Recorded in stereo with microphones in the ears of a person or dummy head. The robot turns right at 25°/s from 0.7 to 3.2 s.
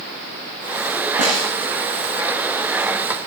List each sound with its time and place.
1.2 s a snare drum: 40° right (ahead or behind), 9.5 m; by 1.5 s 50° right (ahead or behind), 9.5 m